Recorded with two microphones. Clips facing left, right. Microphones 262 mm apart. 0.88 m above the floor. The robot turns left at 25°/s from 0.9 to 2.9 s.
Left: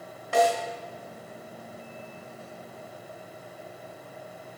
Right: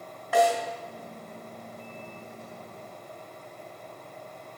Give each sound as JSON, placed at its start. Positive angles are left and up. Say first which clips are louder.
{"t": 0.3, "sound": "a snare drum", "louder": "even", "side_deg": 30, "distance_m": 1.9}